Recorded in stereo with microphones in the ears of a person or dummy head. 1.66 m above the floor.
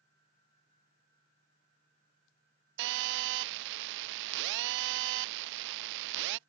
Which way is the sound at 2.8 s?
60° right (ahead or behind).